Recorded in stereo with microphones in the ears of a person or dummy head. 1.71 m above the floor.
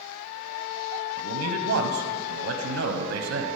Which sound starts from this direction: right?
A man speaking, at 1.2 s.